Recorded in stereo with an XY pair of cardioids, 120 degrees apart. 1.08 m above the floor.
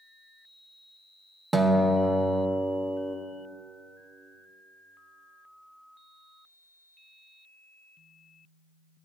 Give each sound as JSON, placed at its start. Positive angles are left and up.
{"t": 1.5, "sound": "a guitar", "azimuth_deg": -15, "distance_m": 0.9}